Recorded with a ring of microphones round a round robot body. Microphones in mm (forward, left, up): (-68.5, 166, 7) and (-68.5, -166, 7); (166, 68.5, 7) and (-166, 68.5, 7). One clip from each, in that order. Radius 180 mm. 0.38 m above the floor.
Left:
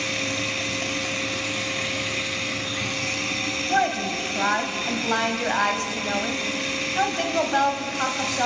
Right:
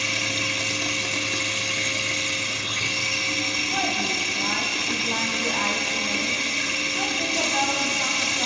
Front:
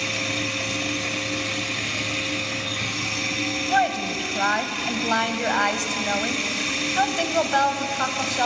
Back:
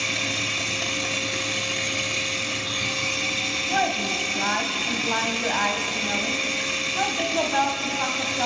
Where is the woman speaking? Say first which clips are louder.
Left 1 dB, front 3 dB; 50° left, 2.5 m.